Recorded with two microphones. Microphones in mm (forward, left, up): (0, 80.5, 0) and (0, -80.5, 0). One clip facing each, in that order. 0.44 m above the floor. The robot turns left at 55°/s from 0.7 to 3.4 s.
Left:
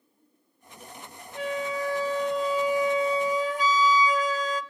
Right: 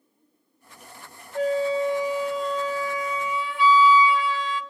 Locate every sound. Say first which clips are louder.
1.4 s a flute: right 7 dB; 125° right, 0.7 m; by 4.6 s 125° left, 0.7 m